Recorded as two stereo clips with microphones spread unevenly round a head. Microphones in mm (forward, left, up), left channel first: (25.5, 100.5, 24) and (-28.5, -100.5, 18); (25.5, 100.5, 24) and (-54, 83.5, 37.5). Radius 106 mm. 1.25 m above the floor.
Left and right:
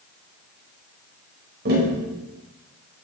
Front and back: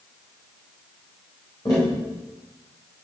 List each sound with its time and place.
1.6 s tapping: 60° right, 4.5 m